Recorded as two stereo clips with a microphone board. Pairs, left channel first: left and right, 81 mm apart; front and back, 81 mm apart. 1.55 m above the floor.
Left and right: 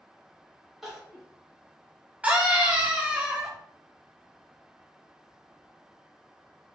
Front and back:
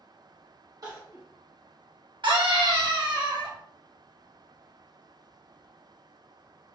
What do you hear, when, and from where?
0.8 s crying: 175° right, 1.1 m
2.2 s a scream: 165° right, 1.0 m